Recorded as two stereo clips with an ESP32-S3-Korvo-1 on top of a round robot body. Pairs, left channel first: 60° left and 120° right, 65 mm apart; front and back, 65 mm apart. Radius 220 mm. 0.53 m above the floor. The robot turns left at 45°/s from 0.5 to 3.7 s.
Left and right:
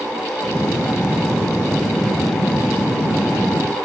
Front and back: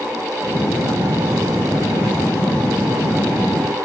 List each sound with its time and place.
Only background noise.